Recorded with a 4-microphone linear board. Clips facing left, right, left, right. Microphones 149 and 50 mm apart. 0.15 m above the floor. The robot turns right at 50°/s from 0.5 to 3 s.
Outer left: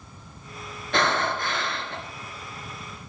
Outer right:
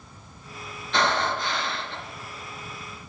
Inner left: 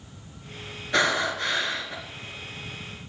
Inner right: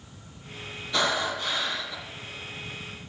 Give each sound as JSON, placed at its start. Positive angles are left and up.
{"t": 0.9, "sound": "breathing", "azimuth_deg": 70, "distance_m": 3.0}